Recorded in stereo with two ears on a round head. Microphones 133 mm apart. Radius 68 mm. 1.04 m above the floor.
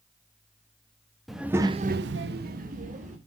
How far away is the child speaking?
About 1.0 m.